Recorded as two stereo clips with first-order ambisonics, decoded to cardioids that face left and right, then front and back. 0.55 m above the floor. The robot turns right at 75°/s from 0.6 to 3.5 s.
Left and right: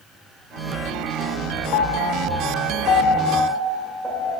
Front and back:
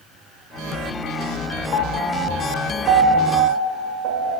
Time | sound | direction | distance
1.7 | a piano | 50° left | 0.9 m